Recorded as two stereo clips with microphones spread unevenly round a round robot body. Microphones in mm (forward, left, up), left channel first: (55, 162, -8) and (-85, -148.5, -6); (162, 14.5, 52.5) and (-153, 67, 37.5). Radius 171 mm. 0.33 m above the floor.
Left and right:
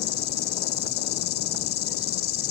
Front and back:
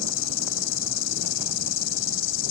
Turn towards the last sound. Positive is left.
turn(degrees=25)